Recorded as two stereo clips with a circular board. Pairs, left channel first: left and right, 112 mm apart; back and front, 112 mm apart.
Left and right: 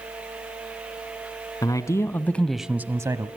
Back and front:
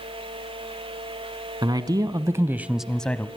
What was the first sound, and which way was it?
A man speaking, 40° left.